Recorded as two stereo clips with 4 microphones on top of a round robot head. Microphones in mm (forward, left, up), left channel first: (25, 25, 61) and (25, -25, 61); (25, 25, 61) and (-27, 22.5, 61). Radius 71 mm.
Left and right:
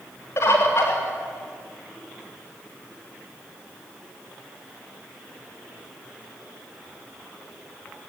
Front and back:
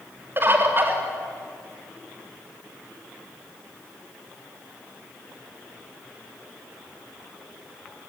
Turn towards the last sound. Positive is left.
turn(degrees=135)